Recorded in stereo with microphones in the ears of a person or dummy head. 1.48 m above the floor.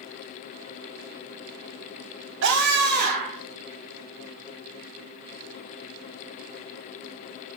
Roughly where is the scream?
Right.